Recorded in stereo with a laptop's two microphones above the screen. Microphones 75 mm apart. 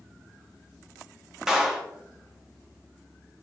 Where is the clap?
5° right (ahead or behind), 1.6 m.